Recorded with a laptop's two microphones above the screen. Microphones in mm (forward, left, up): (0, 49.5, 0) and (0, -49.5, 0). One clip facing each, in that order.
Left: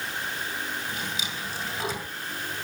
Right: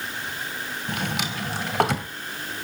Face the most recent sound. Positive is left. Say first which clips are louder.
# right 5 dB
turn(degrees=-65)  # may be behind; listen again after turning